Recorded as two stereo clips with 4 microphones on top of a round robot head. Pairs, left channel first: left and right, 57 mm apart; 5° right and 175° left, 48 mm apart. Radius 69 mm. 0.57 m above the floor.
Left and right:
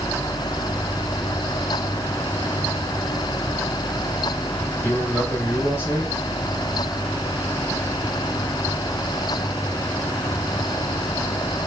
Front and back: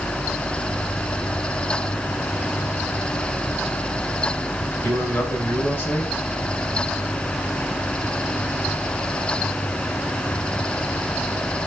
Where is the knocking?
No knocking in this recording.